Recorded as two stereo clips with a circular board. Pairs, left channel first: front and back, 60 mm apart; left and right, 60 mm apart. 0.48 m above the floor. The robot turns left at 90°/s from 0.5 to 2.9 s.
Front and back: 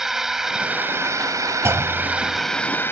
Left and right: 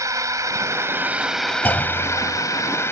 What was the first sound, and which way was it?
A drone, 95° right.